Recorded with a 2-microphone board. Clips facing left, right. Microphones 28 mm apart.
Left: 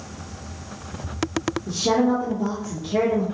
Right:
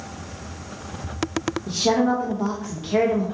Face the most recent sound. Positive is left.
turn(degrees=-55)  # may be behind; listen again after turning